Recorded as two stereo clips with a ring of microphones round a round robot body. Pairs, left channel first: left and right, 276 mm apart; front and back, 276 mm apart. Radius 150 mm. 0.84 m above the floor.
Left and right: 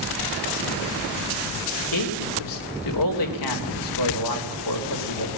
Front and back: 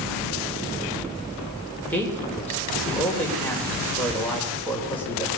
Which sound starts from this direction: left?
A man speaking, at 1.9 s.